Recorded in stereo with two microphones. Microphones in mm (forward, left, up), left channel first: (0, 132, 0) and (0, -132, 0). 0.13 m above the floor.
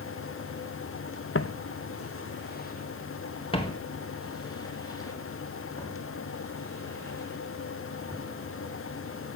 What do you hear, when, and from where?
1.4 s footsteps: 50° left (ahead or behind), 0.6 m; by 8.2 s 10° left (ahead or behind), 6.5 m